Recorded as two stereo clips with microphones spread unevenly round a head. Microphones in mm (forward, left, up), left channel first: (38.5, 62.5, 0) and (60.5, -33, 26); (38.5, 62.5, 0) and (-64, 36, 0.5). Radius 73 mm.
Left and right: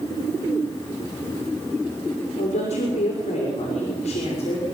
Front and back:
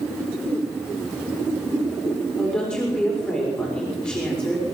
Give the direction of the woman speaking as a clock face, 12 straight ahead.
9 o'clock.